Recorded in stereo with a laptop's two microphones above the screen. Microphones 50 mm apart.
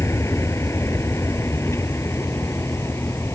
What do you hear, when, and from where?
0.0 s a vehicle: 65° left (ahead or behind); by 3.4 s 60° left (ahead or behind)